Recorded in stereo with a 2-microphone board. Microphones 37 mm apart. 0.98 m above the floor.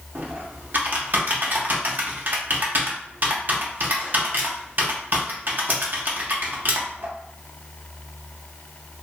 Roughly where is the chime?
I don't hear a chime.